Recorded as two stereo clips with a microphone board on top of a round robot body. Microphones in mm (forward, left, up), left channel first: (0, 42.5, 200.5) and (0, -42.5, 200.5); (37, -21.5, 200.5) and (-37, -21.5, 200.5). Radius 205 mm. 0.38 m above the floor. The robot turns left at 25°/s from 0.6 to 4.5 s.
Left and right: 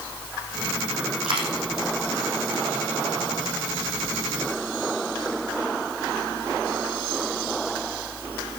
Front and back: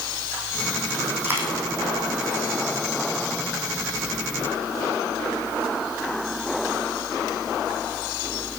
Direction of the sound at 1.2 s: 115° right.